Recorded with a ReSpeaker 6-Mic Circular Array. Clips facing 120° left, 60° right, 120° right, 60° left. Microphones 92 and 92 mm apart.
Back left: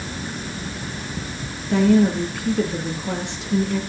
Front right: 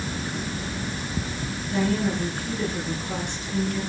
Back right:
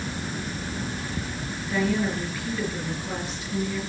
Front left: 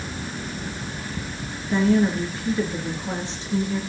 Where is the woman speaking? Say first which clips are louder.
Back left 8 dB, front left 6 dB; 120° left, 4.5 m.